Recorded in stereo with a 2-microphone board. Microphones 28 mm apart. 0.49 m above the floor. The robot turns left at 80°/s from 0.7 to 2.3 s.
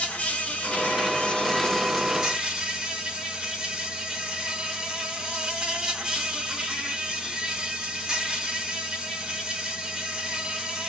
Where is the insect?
105° left, 1.6 m; by 10.9 s 25° right, 1.6 m.